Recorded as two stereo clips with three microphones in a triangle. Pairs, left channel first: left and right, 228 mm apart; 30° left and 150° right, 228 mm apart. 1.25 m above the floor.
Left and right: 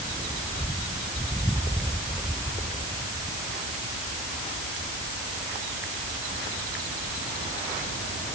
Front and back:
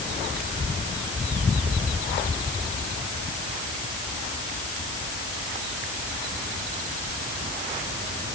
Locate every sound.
Only background noise.